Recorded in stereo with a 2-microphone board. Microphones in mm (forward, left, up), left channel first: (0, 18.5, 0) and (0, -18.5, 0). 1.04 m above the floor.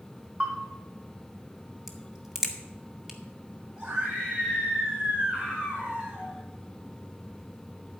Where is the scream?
35° right (ahead or behind), 4 m.